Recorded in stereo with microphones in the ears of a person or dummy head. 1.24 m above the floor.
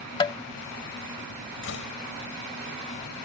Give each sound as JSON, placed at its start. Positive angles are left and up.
{"t": 0.2, "sound": "tapping", "side_deg": 25}
{"t": 1.6, "sound": "a door slam", "side_deg": 65}